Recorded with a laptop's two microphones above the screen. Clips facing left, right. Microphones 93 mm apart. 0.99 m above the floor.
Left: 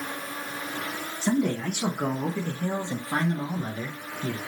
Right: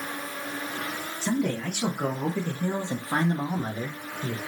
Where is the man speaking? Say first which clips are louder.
Left 2 dB; 15° left (ahead or behind), 1.2 m; by 4.4 s 35° right (ahead or behind), 1.3 m.